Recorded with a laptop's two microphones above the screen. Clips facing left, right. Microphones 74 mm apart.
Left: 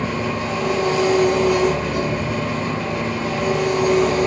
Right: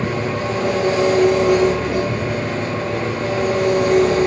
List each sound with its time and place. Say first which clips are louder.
0.0 s an engine running: right 2 dB; 85° right, 7.5 m
2.1 s tearing paper: even; 85° right, 7.5 m